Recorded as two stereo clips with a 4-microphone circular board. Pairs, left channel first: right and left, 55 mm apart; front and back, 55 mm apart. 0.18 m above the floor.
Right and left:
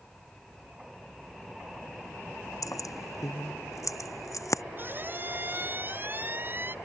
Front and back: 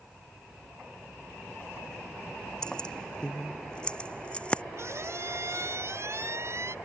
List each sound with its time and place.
2.6 s keys jangling: 75° right; by 4.6 s 70° right
4.8 s a squeak: 145° left